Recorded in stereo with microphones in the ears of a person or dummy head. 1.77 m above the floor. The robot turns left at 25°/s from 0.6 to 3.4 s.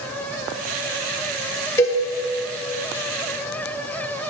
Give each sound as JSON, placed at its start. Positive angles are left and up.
{"t": 1.8, "sound": "a cowbell", "side_deg": 15, "distance_m": 0.9}